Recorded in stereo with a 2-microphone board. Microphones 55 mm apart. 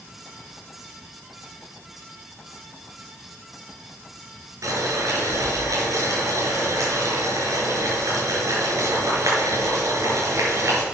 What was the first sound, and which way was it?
Boiling, 80° right.